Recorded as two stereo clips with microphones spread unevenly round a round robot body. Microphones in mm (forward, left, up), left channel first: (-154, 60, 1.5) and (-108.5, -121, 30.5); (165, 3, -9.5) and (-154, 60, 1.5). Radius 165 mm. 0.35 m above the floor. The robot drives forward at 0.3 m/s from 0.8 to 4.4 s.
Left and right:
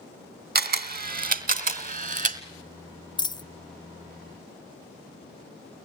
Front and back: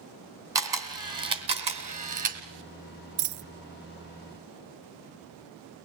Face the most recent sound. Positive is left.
turn(degrees=180)